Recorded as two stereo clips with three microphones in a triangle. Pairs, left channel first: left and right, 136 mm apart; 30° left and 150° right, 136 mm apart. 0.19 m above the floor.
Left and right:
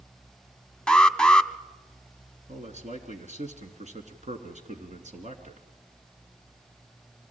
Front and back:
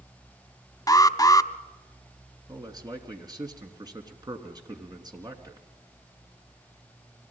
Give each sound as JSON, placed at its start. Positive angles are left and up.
{"t": 0.9, "sound": "an alarm", "azimuth_deg": 15, "distance_m": 0.7}
{"t": 2.5, "sound": "a man speaking", "azimuth_deg": -95, "distance_m": 3.0}